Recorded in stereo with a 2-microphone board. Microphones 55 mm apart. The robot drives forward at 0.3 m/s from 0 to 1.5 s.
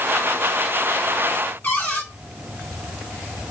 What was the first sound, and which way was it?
A cupboard door, 40° left (ahead or behind).